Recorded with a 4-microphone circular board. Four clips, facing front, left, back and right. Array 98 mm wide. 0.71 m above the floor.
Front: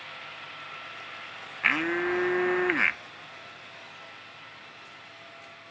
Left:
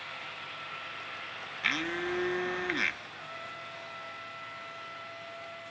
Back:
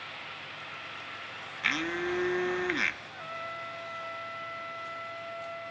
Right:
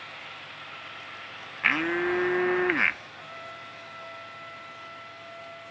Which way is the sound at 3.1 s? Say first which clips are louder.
Right 1 dB, back 7 dB; 175° right.